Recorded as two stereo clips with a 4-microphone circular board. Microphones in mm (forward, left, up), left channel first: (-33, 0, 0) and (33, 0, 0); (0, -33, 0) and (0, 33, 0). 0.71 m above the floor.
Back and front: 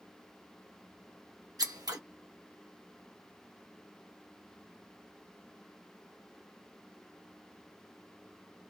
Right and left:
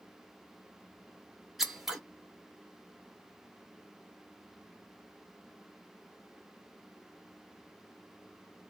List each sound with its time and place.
1.6 s scissors: 5° left, 0.8 m